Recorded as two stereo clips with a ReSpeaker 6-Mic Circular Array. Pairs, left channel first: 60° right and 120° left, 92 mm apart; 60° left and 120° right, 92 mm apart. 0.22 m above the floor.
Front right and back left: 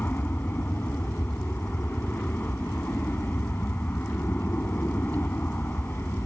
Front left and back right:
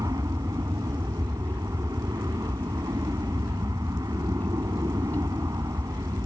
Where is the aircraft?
120° right.